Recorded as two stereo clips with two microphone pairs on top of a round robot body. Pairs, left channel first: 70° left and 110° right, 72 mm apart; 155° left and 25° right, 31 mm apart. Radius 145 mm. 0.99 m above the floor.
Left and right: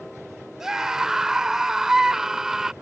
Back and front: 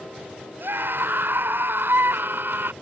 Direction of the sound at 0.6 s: 25° right.